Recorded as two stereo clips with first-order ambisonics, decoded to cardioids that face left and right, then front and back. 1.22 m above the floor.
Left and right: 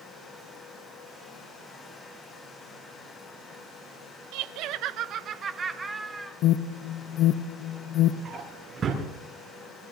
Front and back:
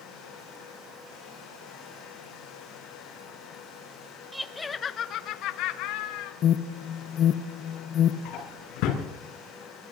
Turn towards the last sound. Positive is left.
turn(degrees=-25)